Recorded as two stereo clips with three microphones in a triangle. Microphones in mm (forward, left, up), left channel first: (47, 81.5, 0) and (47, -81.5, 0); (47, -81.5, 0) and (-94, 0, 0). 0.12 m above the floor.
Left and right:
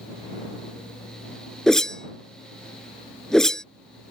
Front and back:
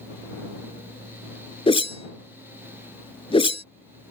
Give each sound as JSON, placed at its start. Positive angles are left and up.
{"t": 1.7, "sound": "a whoosh", "azimuth_deg": 5}